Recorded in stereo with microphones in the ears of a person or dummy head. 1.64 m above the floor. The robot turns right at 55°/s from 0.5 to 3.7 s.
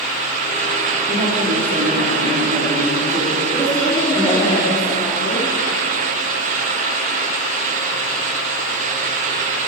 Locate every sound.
1.1 s a woman speaking: 170° right, 3 m; by 4.5 s 25° right, 3 m
3.5 s a woman speaking: 35° right (ahead or behind), 4 m; by 5.5 s 25° right (ahead or behind), 4 m